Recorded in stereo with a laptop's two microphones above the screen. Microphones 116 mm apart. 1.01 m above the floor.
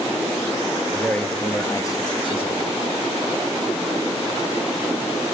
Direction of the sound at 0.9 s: Centre (ahead or behind).